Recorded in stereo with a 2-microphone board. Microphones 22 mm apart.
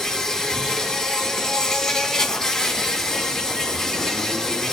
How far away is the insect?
About 1.4 m.